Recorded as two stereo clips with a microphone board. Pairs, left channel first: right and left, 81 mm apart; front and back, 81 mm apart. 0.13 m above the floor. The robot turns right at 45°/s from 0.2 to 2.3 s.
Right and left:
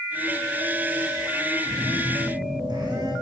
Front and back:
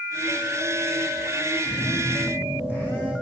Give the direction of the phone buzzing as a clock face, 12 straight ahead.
11 o'clock.